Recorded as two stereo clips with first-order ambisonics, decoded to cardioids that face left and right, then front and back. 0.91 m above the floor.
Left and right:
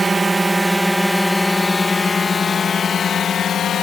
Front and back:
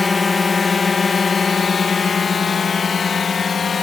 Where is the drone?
40° right; by 3.8 s 55° left.